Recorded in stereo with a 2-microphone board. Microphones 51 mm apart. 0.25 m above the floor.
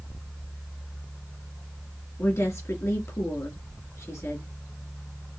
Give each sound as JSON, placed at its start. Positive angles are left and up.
{"t": 2.2, "sound": "a woman speaking", "side_deg": 65, "distance_m": 3.0}